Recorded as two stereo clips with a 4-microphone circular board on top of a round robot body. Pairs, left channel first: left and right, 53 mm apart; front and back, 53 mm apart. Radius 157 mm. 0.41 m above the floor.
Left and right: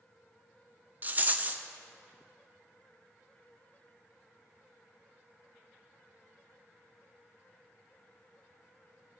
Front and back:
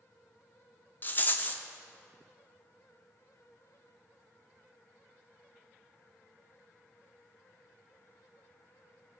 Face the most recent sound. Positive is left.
turn(degrees=-45)